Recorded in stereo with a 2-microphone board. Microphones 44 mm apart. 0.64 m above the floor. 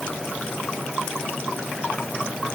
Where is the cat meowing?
I don't hear a cat meowing.